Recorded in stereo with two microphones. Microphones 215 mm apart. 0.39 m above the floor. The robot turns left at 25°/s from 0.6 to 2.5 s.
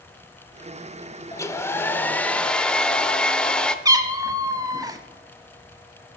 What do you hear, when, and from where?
1.3 s a hair dryer: 15° left (ahead or behind), 0.6 m; by 3.8 s 5° left (ahead or behind), 0.6 m
3.9 s a cat meowing: 15° right (ahead or behind), 0.9 m